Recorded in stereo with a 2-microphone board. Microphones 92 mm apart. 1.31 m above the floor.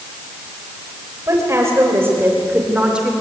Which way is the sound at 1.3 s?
35° right (ahead or behind).